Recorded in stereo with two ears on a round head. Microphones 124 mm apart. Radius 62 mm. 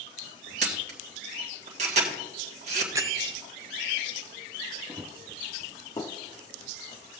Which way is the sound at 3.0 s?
25° right (ahead or behind).